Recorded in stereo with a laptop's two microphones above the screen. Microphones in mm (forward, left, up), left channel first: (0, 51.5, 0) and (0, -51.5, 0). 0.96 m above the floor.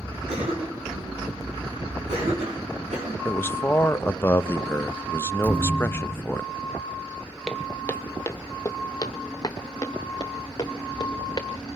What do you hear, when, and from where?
0.3 s a cough: 85° right, 7.5 m
3.2 s a man speaking: 20° left (ahead or behind), 0.7 m
5.4 s a thud: 15° right (ahead or behind), 4.5 m
7.5 s footsteps: 5° left (ahead or behind), 1.0 m; by 11.5 s 40° left (ahead or behind), 3 m